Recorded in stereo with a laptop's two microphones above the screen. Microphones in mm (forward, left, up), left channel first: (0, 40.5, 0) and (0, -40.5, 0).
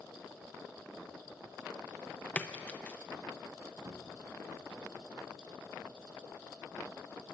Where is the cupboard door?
40° right (ahead or behind), 1.5 m.